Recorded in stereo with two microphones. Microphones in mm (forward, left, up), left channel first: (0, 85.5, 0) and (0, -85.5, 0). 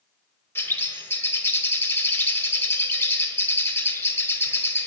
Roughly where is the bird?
Centre.